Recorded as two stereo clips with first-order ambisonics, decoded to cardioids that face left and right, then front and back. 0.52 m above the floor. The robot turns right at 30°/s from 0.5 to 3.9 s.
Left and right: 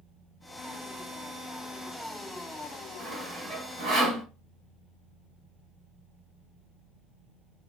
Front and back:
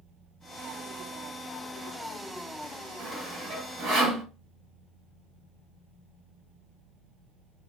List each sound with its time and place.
3.0 s sawing: 175° right, 1.4 m; by 4.2 s 145° right, 1.4 m